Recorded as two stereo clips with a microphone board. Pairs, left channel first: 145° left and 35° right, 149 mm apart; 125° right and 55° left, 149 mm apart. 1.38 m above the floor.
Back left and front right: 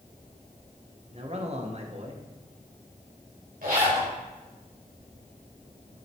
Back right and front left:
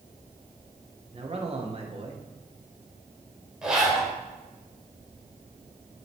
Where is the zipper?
30° right, 3.5 m.